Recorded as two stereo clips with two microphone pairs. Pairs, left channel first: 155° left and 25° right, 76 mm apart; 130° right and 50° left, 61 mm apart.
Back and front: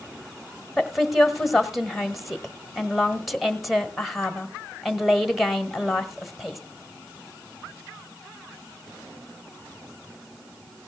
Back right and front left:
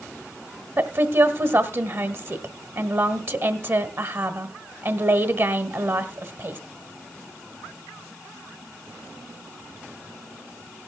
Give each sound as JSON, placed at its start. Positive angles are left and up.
{"t": 0.8, "sound": "a woman speaking", "azimuth_deg": 65, "distance_m": 1.3}